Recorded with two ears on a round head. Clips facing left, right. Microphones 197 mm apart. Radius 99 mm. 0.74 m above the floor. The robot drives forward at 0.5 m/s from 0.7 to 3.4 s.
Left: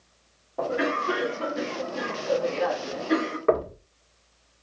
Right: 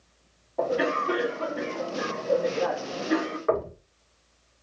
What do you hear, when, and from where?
0.6 s a cough: 15° left (ahead or behind), 2.0 m; by 3.4 s 25° left (ahead or behind), 1.1 m
3.5 s knocking: 45° left (ahead or behind), 1.6 m